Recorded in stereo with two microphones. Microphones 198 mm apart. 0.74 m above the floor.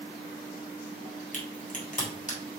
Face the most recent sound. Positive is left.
turn(degrees=40)  # may be behind; listen again after turning